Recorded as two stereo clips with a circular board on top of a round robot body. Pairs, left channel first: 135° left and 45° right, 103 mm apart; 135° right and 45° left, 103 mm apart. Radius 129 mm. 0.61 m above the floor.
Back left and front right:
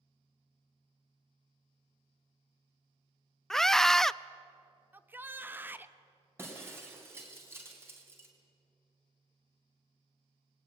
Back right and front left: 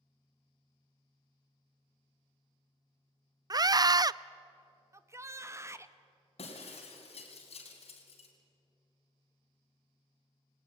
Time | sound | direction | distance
3.5 | a scream | 50° left | 0.6 m
4.9 | a shout | 10° left | 1.3 m
6.4 | breaking glass | 115° right | 4 m